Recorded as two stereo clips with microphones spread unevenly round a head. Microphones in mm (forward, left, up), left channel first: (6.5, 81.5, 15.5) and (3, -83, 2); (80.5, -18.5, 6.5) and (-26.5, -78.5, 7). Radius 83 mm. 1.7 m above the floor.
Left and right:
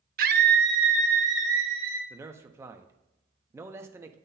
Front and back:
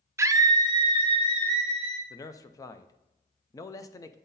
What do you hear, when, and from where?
0.2 s a scream: 90° right, 0.6 m; by 2.0 s 110° right, 1.7 m
2.1 s a man speaking: 20° right, 0.5 m